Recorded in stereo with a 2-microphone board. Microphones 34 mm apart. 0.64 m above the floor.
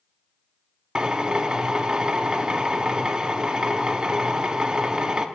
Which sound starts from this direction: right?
A drill, at 0.9 s.